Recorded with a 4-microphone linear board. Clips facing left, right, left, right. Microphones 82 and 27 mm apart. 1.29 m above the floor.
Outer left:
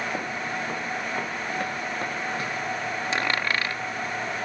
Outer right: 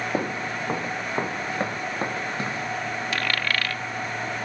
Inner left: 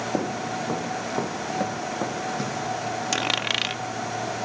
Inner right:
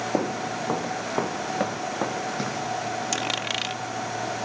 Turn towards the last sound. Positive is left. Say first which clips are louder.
# outer left 1 dB, inner left 5 dB
turn(degrees=20)  # may be behind; listen again after turning